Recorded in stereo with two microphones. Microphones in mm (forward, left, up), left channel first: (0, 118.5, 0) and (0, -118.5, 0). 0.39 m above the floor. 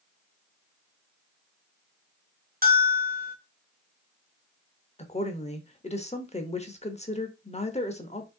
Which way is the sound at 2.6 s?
40° right (ahead or behind).